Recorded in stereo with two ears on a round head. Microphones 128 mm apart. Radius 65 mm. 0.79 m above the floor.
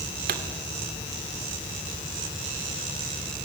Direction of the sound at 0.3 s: 70° right (ahead or behind).